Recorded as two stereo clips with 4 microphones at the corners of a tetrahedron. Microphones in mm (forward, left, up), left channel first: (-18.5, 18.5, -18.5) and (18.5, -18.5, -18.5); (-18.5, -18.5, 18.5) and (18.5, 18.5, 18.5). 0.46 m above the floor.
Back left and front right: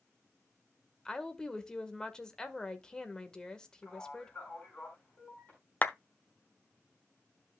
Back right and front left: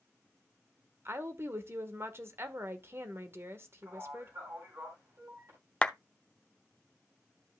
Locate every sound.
1.1 s a woman speaking: 60° left, 1.3 m
3.8 s a man speaking: 75° left, 4.5 m
5.8 s a clap: 165° left, 0.7 m